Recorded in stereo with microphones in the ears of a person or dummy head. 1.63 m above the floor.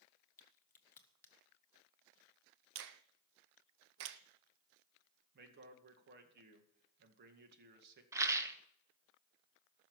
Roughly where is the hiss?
I don't hear a hiss.